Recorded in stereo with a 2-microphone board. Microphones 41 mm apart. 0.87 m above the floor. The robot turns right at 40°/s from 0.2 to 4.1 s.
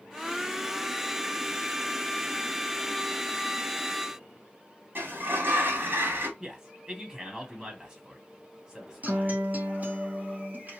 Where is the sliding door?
55° right (ahead or behind), 1.3 m.